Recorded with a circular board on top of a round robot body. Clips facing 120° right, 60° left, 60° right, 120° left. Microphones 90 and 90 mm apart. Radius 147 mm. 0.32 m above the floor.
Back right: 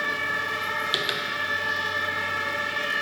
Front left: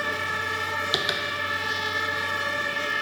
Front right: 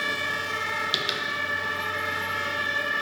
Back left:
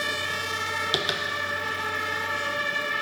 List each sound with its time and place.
0.9 s tapping: 115° left, 0.5 m